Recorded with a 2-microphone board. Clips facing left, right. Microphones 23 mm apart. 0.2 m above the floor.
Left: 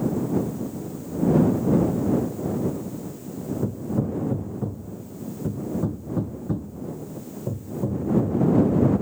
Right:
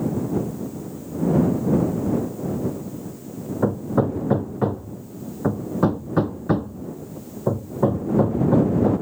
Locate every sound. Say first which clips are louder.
3.6 s hammering: right 7 dB; 55° right (ahead or behind)